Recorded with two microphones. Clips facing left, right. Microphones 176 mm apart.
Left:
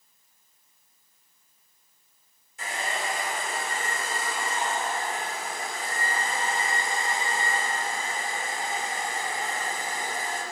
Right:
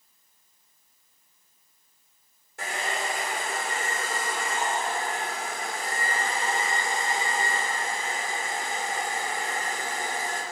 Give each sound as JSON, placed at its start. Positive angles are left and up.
{"t": 2.6, "sound": "a hair dryer", "side_deg": -75, "distance_m": 2.0}